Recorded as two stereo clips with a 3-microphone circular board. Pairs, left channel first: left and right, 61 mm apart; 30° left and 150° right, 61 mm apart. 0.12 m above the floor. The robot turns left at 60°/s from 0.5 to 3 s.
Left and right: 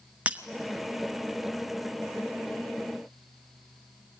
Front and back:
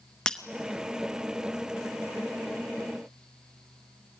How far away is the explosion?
I don't hear an explosion.